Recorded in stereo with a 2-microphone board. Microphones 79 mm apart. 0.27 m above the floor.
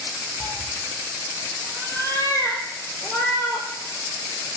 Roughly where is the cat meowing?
Left.